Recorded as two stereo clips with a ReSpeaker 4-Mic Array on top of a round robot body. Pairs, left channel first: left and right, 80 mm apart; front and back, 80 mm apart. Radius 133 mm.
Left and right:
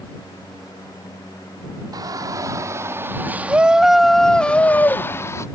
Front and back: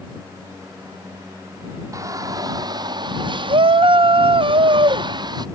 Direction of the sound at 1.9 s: 130° right.